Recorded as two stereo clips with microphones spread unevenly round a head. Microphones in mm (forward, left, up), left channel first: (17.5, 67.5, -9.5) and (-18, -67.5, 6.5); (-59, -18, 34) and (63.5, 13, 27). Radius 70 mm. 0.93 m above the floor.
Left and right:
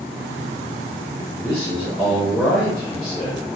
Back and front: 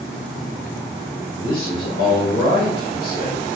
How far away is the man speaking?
About 1.0 m.